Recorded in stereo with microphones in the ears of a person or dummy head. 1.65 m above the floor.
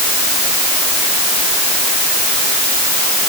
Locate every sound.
Only background noise.